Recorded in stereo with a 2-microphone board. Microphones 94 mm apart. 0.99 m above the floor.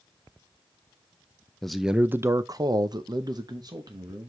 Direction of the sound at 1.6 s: 5° left (ahead or behind).